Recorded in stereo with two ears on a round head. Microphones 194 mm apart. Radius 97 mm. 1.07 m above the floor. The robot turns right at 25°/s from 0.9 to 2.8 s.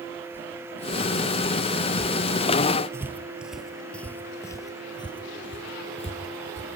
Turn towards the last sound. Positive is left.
turn(degrees=30)  # may be behind; listen again after turning